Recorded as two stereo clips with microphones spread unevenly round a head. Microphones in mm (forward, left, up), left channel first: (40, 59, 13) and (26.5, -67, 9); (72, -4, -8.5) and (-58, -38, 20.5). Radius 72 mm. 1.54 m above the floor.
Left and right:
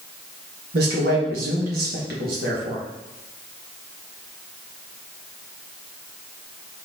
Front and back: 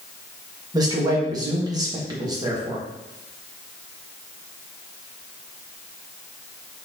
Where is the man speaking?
110° right, 1.5 m.